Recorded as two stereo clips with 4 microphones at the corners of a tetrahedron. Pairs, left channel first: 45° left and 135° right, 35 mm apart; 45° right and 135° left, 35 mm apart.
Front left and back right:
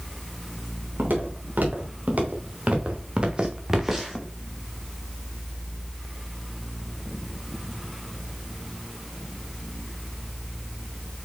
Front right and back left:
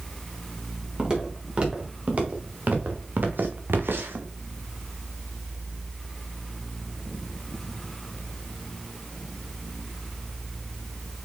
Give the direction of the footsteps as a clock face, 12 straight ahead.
5 o'clock.